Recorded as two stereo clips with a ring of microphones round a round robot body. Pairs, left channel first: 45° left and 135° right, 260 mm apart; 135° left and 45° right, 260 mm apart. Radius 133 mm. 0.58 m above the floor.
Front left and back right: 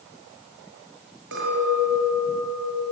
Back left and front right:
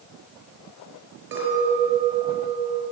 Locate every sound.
1.3 s a clink: 90° right, 5.5 m